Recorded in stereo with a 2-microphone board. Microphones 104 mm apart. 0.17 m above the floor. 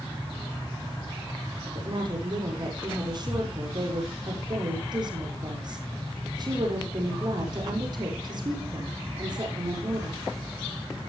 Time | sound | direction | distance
1.8 | a woman speaking | 45° right (ahead or behind) | 6 m